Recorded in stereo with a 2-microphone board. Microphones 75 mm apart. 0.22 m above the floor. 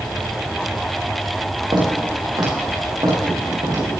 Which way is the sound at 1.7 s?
80° right.